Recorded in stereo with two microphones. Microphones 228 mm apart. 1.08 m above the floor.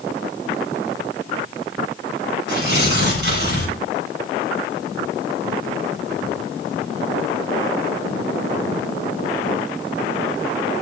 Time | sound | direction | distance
2.5 | tearing paper | 50° right (ahead or behind) | 7.5 m